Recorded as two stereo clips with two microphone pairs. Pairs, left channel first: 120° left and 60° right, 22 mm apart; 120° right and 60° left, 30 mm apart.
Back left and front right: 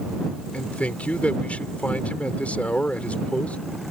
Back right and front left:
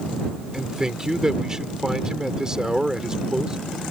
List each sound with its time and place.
0.5 s a man speaking: 125° left